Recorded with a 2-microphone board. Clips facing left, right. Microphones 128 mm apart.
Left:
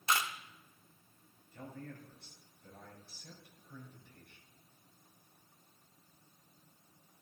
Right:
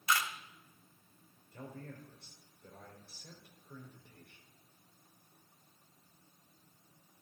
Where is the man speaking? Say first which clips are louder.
Even; 70° right (ahead or behind), 5 m.